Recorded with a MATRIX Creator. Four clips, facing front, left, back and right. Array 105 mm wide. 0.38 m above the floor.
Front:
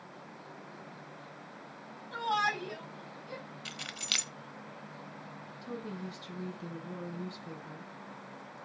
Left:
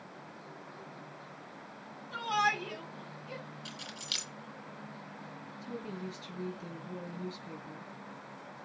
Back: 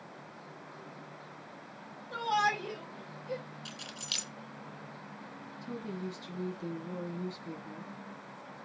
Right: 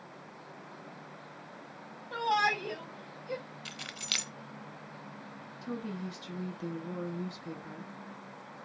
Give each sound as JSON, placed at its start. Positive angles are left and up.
{"t": 2.1, "sound": "a shout", "azimuth_deg": -95, "distance_m": 7.0}
{"t": 3.6, "sound": "keys jangling", "azimuth_deg": -40, "distance_m": 0.8}
{"t": 5.6, "sound": "a woman speaking", "azimuth_deg": -100, "distance_m": 4.5}